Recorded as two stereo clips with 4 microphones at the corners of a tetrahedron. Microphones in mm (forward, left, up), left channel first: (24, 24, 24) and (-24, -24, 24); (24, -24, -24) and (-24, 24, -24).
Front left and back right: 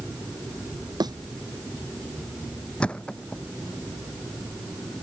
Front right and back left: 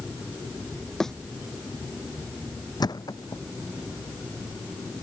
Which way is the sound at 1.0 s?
125° right.